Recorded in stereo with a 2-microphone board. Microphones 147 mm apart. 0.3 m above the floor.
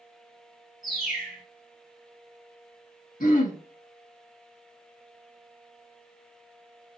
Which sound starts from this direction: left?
Throat clearing, at 3.2 s.